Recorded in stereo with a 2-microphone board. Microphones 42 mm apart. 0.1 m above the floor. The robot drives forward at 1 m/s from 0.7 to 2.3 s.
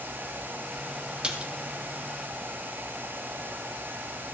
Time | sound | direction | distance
1.2 | a splash | 25° right (ahead or behind) | 1.4 m